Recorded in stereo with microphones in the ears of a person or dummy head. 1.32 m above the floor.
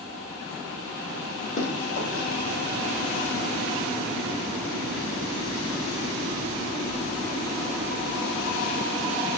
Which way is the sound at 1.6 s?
50° left (ahead or behind).